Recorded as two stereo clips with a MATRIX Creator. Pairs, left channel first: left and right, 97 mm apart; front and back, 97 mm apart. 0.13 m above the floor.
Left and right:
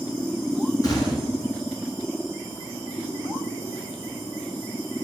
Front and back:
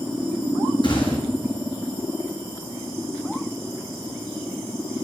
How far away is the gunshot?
About 1.9 m.